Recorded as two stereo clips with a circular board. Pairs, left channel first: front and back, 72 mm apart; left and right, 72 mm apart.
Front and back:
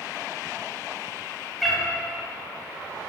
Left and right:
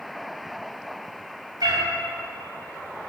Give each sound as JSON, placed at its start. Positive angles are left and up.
{"t": 1.6, "sound": "a cat meowing", "azimuth_deg": -90, "distance_m": 2.5}